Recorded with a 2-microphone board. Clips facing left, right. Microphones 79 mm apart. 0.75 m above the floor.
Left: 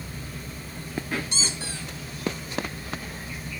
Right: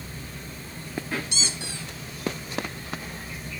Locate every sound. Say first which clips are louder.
1.3 s a squeak: left 1 dB; 35° left (ahead or behind), 0.5 m